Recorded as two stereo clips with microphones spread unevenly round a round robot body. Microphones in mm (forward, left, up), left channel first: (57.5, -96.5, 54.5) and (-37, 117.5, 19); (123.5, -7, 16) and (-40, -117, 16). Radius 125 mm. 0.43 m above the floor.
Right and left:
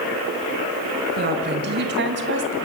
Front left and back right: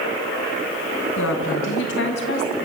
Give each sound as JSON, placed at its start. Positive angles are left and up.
{"t": 1.2, "sound": "a woman speaking", "azimuth_deg": 70, "distance_m": 4.0}